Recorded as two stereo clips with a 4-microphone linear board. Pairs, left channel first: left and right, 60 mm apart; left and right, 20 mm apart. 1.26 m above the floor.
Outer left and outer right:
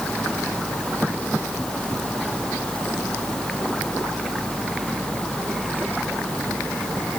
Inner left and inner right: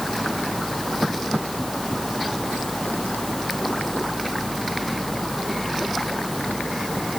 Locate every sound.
Only background noise.